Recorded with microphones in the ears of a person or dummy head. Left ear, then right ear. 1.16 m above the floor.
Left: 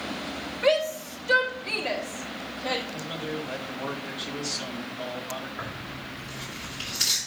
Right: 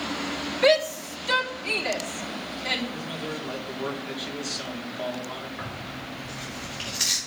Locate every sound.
0.6 s a shout: 75° right (ahead or behind), 2.5 m
2.9 s a man speaking: 20° right (ahead or behind), 2 m
5.6 s tearing paper: 20° right (ahead or behind), 5.5 m